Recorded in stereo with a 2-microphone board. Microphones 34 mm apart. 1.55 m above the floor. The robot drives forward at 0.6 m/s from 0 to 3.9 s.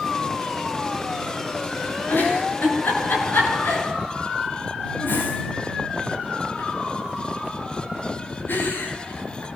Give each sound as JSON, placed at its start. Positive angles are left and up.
{"t": 2.1, "sound": "a giggle", "side_deg": 75, "distance_m": 9.5}